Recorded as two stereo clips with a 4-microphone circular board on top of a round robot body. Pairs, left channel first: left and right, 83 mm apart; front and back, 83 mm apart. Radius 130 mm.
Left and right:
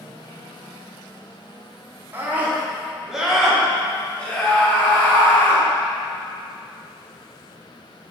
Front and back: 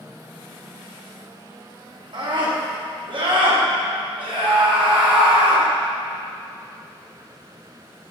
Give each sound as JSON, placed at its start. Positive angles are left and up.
{"t": 2.1, "sound": "a scream", "azimuth_deg": -160, "distance_m": 2.5}